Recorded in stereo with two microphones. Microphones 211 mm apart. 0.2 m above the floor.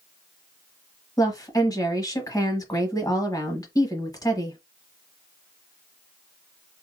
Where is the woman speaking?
15° left (ahead or behind), 1.1 m.